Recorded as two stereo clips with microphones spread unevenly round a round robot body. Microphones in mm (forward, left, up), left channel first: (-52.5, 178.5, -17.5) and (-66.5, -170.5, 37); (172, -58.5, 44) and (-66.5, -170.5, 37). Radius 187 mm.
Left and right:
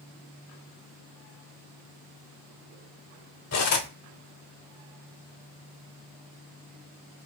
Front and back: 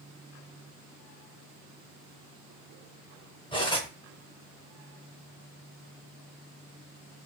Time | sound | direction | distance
3.5 | cutlery clinking | 95° left | 0.8 m